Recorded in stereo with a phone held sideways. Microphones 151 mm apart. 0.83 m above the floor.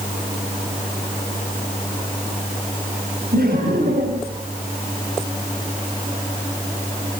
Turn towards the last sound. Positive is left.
turn(degrees=-85)